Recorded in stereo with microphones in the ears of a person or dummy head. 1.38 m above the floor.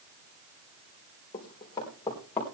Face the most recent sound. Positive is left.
turn(degrees=15)  # may be behind; listen again after turning